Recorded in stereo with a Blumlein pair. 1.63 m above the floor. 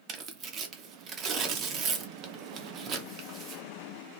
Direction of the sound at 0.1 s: 30° right.